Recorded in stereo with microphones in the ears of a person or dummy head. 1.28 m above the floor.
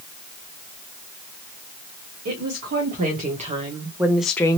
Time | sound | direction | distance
2.2 | a woman speaking | 60° right (ahead or behind) | 1.5 m